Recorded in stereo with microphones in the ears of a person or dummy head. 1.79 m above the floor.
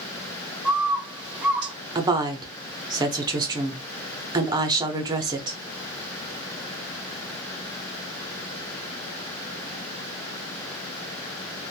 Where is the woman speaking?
15° right (ahead or behind), 0.6 m.